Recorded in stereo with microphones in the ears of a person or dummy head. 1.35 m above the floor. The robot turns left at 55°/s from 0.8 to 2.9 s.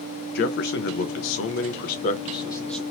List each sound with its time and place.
0.3 s a man speaking: 110° left, 0.6 m; by 2.8 s straight ahead, 0.6 m